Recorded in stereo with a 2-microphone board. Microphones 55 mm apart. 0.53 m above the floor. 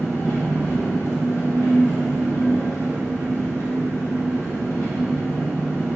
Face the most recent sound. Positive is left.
turn(degrees=55)  # may be behind; listen again after turning